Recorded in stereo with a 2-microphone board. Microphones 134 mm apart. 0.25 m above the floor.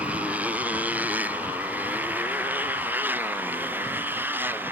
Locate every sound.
0.0 s a motorcycle: 10° right (ahead or behind); by 4.7 s 15° right (ahead or behind)